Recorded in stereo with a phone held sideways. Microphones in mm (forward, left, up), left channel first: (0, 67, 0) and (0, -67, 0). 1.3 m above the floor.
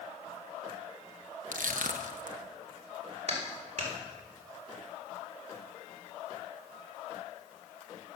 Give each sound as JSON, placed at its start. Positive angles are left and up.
{"t": 1.5, "sound": "crushing", "side_deg": -75, "distance_m": 1.1}
{"t": 3.3, "sound": "a clap", "side_deg": -55, "distance_m": 4.0}